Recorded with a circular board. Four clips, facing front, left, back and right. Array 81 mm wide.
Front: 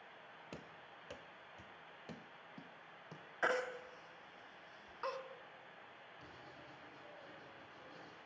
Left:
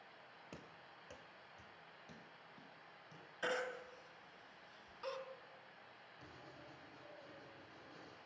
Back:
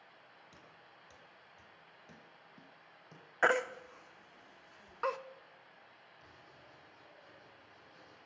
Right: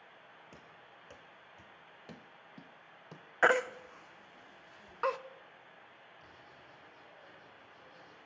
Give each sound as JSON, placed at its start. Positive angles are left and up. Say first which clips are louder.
{"t": 0.5, "sound": "running footsteps", "louder": "right 1 dB, front 5 dB", "azimuth_deg": 15, "distance_m": 1.5}
{"t": 3.4, "sound": "a baby crying", "louder": "right 13 dB, back 7 dB", "azimuth_deg": -120, "distance_m": 0.6}
{"t": 6.2, "sound": "writing", "louder": "left 2 dB, front 3 dB", "azimuth_deg": 40, "distance_m": 6.5}